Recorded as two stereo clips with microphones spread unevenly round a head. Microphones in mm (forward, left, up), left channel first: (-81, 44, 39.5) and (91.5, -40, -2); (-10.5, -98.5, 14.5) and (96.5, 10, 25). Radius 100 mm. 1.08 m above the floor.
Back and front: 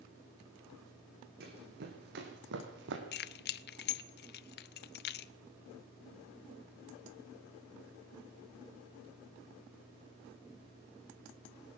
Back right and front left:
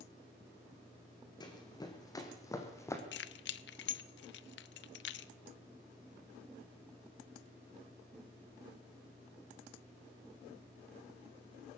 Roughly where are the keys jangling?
Behind.